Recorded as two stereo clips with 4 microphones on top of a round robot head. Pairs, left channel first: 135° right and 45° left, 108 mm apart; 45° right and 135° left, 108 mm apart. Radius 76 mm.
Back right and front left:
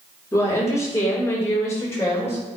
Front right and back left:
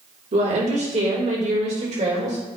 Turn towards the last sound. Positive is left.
turn(degrees=155)